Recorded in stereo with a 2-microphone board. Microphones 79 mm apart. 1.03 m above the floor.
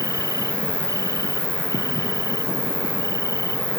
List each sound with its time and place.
0.0 s an insect: 45° left (ahead or behind)